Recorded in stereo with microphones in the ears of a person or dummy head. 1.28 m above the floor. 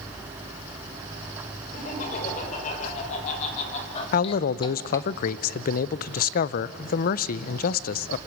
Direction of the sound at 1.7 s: 50° left (ahead or behind).